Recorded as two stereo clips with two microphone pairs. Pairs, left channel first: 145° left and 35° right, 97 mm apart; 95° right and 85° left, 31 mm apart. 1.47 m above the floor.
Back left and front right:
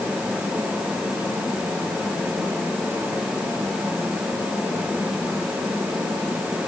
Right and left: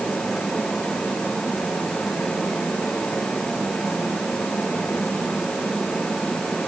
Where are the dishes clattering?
No dishes clattering in this recording.